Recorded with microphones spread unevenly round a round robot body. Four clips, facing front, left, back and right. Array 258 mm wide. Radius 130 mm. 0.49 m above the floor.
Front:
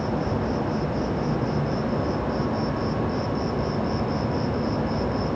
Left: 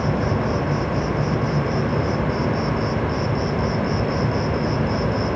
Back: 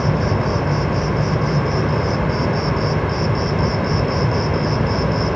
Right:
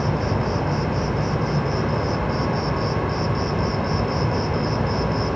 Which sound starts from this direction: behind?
An insect, at 0.0 s.